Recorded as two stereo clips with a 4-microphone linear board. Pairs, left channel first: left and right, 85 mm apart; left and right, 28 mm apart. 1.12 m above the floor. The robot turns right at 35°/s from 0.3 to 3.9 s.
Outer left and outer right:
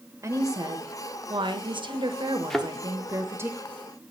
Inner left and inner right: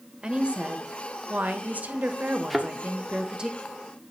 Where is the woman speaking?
140° right, 1.1 m; by 3.5 s 30° right, 1.1 m.